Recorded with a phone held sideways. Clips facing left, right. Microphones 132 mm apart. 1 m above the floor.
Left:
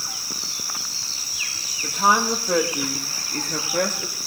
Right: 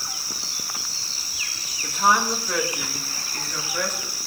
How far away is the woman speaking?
About 1.5 m.